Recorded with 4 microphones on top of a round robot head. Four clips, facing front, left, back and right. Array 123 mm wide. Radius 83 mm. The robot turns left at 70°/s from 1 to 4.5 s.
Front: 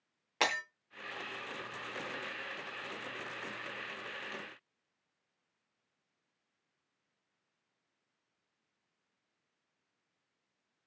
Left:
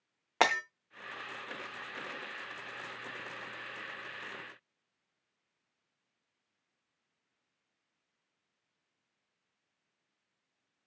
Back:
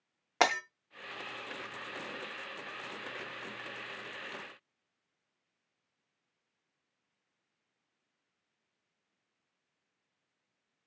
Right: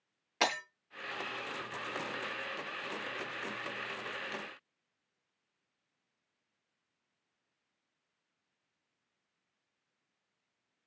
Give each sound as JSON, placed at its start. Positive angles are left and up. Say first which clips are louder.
{"t": 0.4, "sound": "breaking glass", "louder": "left 5 dB, back 6 dB", "azimuth_deg": 125, "distance_m": 0.5}